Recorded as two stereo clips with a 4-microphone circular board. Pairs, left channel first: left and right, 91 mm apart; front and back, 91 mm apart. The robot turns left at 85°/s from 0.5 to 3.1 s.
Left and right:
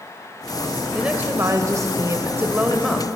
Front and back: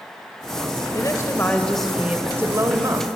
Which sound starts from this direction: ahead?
A woman speaking, at 0.9 s.